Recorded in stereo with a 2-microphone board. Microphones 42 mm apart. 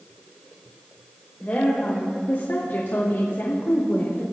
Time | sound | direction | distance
1.4 | a woman speaking | 40° left (ahead or behind) | 3 m